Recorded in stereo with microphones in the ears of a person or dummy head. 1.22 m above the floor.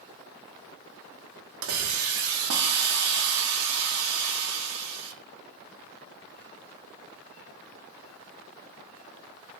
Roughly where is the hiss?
Right.